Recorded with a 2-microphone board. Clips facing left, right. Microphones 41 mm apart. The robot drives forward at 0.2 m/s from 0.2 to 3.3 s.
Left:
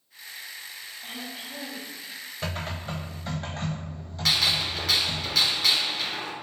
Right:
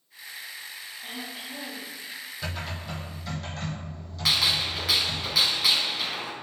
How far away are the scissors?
I don't hear scissors.